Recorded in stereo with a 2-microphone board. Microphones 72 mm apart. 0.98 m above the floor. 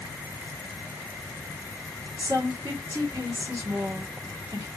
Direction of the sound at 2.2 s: 55° right (ahead or behind).